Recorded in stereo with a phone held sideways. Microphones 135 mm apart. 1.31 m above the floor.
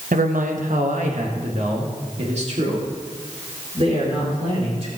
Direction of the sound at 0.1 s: 75° right (ahead or behind).